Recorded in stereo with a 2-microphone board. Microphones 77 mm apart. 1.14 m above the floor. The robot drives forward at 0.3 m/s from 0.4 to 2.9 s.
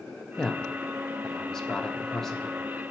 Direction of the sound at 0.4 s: 10° left (ahead or behind).